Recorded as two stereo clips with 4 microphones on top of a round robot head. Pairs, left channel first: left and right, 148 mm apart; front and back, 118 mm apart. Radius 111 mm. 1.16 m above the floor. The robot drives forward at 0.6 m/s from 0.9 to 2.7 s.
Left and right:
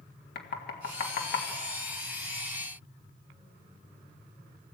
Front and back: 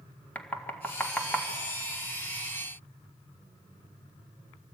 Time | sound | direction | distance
0.3 | knocking | 75° left | 1.8 m